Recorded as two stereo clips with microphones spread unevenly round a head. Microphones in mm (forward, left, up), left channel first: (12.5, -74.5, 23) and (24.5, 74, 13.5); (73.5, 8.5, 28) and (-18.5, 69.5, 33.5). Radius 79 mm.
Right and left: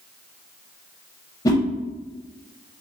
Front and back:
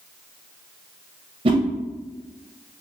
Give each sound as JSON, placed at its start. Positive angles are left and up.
{"t": 1.4, "sound": "a whoosh", "azimuth_deg": -165, "distance_m": 0.6}